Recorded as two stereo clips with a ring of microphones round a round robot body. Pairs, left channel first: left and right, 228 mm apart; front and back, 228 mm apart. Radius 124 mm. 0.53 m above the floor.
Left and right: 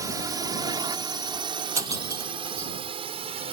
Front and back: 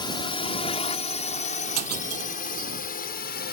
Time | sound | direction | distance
0.0 | a drone | 35° right | ?
1.8 | breaking glass | 165° right | ?